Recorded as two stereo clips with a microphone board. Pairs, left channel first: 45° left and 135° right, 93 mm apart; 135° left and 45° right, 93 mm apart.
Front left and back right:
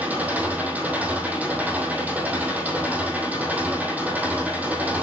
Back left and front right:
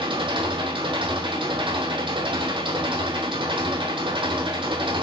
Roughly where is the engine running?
Ahead right.